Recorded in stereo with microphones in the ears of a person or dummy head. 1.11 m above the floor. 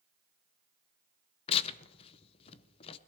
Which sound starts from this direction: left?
Tearing paper, at 1.5 s.